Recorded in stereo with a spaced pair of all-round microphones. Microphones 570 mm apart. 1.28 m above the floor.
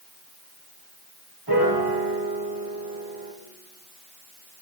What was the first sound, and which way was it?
A piano, 40° right (ahead or behind).